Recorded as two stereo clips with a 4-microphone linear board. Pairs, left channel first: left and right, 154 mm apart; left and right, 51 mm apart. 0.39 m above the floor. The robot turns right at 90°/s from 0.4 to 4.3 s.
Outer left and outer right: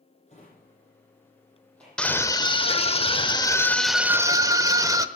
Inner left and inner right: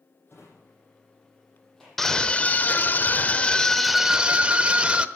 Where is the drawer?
45° left (ahead or behind), 7 m; by 2.1 s 25° right (ahead or behind), 7 m.